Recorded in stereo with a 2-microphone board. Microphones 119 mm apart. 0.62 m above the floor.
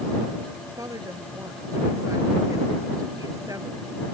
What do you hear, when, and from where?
0.8 s a woman speaking: 30° right (ahead or behind)